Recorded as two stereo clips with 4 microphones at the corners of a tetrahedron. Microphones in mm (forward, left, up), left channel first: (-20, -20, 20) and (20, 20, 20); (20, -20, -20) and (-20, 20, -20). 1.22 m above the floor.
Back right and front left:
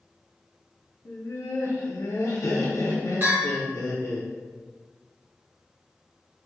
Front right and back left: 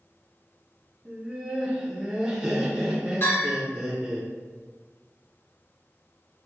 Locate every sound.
1.1 s laughter: 150° right, 0.6 m
3.2 s a bell: 5° right, 1.9 m